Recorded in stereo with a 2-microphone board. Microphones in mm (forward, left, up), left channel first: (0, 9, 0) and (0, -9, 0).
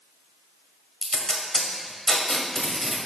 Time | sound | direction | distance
1.0 | tape being pulled | 30° left (ahead or behind) | 1.3 m